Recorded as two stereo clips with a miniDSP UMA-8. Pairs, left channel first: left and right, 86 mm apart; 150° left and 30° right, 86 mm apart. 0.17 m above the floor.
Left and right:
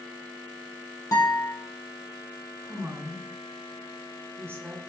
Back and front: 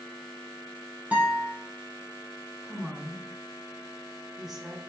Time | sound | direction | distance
1.1 | a guitar | 40° left | 3 m
2.6 | a woman speaking | 115° right | 1.7 m